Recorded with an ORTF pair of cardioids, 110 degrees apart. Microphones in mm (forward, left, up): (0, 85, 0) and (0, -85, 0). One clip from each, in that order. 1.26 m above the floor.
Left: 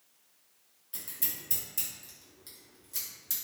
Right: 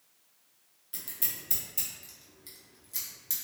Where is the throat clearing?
No throat clearing in this recording.